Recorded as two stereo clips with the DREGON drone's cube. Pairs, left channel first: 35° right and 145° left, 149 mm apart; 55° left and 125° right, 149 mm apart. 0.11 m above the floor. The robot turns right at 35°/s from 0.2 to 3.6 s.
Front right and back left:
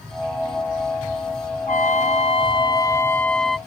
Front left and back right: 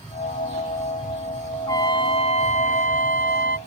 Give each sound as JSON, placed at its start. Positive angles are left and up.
{"t": 1.7, "sound": "a trumpet", "azimuth_deg": -10}